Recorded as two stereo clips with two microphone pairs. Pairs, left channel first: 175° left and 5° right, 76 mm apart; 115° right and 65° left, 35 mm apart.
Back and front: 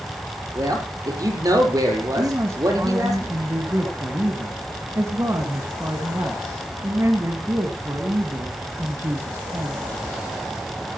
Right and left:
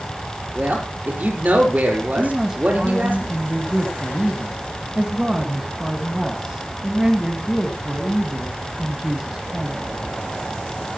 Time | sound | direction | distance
0.6 | a man speaking | 30° left | 5.5 m
2.2 | a man speaking | 10° left | 1.9 m